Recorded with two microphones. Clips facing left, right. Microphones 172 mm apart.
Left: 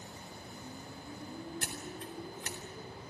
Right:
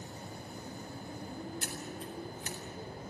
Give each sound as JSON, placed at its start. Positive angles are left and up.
{"t": 1.6, "sound": "scissors", "side_deg": 70, "distance_m": 3.5}